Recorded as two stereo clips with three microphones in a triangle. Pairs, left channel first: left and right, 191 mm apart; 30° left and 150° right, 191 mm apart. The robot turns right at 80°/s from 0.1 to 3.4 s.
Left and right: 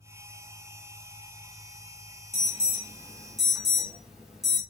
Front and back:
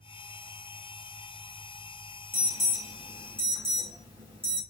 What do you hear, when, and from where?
2.3 s an alarm: 100° left, 1.2 m; by 4.6 s 175° right, 1.2 m